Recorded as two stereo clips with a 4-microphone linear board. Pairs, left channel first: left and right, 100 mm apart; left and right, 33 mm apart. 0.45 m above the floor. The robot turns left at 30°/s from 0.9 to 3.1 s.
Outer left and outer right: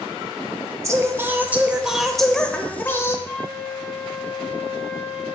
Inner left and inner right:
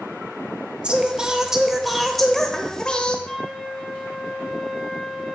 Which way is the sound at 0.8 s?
145° right.